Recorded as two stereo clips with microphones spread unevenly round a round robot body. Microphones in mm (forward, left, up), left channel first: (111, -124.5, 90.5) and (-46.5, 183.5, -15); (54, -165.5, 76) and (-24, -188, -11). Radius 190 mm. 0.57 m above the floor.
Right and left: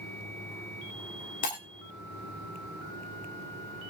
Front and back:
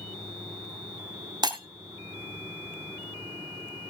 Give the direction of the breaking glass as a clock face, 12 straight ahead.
4 o'clock.